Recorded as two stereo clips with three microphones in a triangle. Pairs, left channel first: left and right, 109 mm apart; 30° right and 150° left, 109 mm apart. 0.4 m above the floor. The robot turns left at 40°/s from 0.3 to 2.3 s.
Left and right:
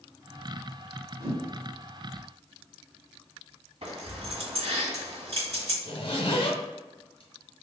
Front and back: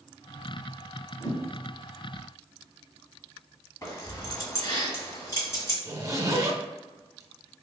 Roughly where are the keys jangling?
Right.